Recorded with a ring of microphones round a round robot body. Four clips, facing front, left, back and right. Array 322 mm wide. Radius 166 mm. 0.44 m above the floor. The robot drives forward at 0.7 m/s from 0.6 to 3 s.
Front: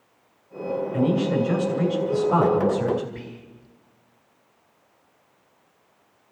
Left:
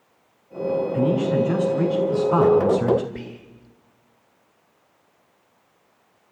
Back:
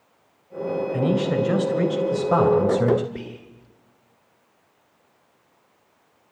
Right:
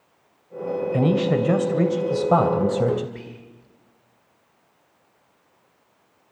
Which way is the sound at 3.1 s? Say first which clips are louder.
Left 3 dB, back 3 dB; 140° left.